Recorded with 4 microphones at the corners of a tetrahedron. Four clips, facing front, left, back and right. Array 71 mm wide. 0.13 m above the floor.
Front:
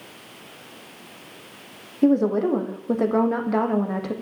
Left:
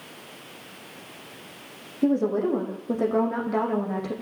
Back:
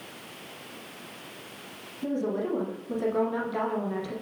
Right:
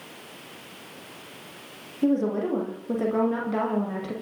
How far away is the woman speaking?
About 7.5 m.